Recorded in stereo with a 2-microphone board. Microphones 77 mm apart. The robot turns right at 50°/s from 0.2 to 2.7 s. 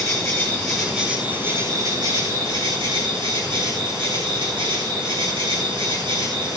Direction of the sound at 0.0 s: 145° left.